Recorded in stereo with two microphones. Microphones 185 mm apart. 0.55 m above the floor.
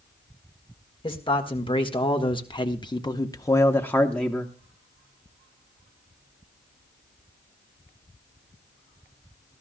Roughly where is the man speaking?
Left.